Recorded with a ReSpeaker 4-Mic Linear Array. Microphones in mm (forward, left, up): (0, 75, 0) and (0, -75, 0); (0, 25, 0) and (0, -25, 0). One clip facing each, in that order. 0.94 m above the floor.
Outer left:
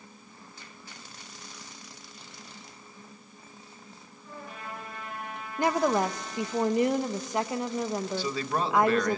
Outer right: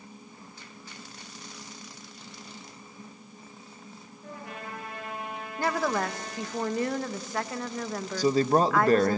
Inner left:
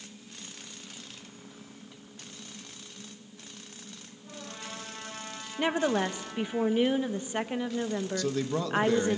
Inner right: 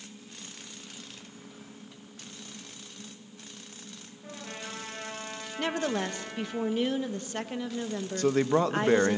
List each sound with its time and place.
4.2 s a trumpet: 75° right (ahead or behind), 9.5 m
5.6 s a woman speaking: 20° left (ahead or behind), 0.8 m
8.2 s a man speaking: 40° right (ahead or behind), 0.8 m